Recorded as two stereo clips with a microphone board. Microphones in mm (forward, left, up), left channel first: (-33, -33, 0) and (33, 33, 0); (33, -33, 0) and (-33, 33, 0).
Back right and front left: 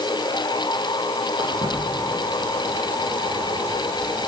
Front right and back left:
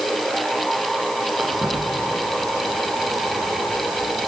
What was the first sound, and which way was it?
Footsteps, 60° left.